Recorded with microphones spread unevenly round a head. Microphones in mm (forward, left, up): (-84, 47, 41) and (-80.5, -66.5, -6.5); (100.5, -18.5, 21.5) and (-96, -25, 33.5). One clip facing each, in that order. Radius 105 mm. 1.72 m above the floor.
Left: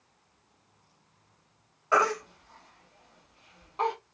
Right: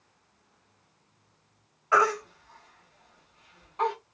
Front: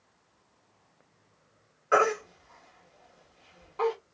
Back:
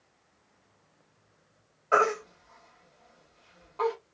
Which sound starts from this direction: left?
A baby crying, at 1.9 s.